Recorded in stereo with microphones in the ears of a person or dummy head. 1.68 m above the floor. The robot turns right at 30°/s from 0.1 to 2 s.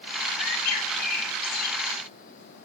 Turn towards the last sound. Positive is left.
turn(degrees=145)